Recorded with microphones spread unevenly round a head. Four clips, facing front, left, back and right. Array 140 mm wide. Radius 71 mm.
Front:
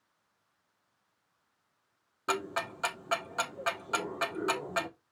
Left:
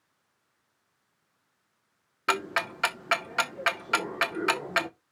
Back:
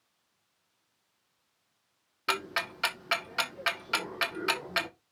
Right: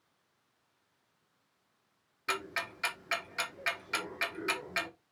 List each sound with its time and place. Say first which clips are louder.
2.3 s ticking: left 8 dB, even; 80° left, 0.9 m